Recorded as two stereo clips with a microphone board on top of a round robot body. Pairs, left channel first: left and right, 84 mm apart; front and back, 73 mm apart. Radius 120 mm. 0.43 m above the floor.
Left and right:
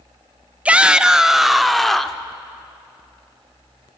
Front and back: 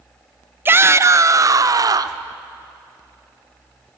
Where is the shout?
155° right, 1.0 m; by 2.2 s 175° left, 1.4 m.